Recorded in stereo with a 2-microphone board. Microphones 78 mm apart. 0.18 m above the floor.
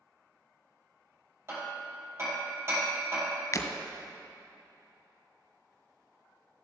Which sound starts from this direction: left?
Breaking glass, at 3.5 s.